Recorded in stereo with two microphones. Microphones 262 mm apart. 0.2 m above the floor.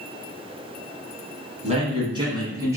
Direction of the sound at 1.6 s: 25° right (ahead or behind).